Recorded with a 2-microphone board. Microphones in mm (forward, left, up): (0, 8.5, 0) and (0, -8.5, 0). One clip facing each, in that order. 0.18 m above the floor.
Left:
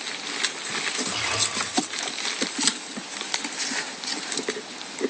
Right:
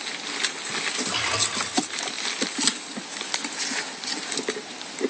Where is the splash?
5° right (ahead or behind), 10 m.